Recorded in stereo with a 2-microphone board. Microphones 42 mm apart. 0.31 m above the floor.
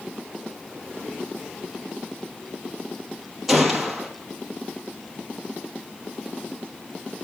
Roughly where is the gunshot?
Centre.